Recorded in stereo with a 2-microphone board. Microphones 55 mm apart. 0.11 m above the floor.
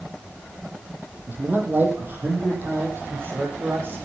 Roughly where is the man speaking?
Right.